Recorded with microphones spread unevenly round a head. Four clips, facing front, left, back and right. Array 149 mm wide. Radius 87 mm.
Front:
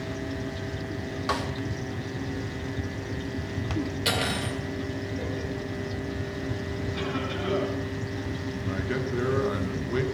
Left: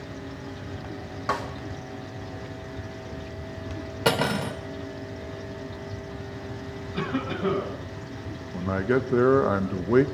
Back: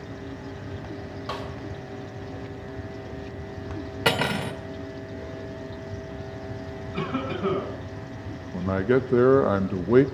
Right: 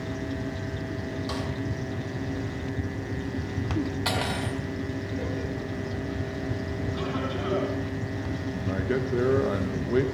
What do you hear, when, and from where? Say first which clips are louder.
1.3 s a snare drum: left 8 dB, front 5 dB; 55° left, 2.5 m
4.0 s cutlery clinking: left 4 dB, back 4 dB; 115° left, 1.8 m
6.9 s a cough: left 4 dB, back 4 dB; 135° left, 7.5 m
8.5 s a man speaking: left 5 dB, back 11 dB; 170° left, 0.8 m